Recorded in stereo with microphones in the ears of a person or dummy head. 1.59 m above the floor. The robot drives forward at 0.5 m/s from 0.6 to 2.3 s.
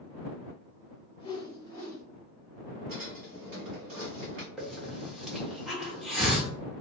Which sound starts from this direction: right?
A drawer, at 2.9 s.